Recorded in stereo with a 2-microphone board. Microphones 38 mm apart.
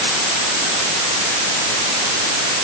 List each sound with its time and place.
Only background noise.